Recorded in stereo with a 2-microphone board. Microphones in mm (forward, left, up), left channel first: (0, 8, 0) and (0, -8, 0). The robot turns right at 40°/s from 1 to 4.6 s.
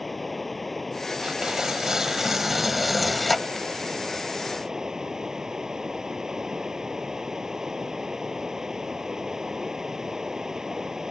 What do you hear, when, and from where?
0.0 s running water: straight behind; by 11.1 s 35° right
1.2 s tearing paper: 75° right; by 3.7 s 20° left